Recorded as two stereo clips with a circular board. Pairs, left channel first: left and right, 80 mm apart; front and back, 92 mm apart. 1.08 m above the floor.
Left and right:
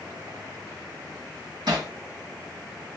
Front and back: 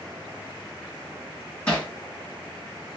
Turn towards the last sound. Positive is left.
turn(degrees=-75)